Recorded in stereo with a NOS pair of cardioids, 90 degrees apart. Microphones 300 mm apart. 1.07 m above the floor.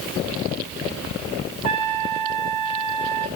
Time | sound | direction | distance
1.6 | a trumpet | 70° right | 2.5 m